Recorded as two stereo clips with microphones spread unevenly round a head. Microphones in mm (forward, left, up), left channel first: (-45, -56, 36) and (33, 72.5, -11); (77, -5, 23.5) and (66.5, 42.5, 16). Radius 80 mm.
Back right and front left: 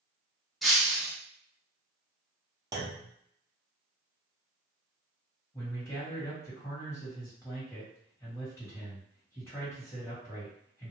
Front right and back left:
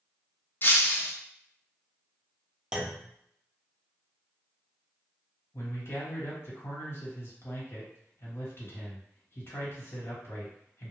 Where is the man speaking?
45° right, 1.6 m.